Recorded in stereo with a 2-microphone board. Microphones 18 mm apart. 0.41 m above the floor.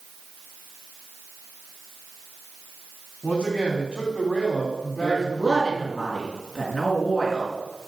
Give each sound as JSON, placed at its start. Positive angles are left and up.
{"t": 3.2, "sound": "a man speaking", "side_deg": 70, "distance_m": 3.5}
{"t": 5.0, "sound": "a woman speaking", "side_deg": -10, "distance_m": 5.0}